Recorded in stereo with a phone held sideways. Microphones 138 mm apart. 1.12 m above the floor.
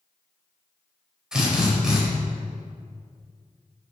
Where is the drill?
5° right (ahead or behind), 5 m.